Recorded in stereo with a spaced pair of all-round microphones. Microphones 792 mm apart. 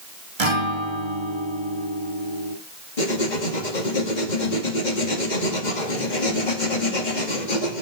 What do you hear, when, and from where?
0.4 s a guitar: 35° right (ahead or behind), 1.6 m
3.0 s writing: 65° left (ahead or behind), 2 m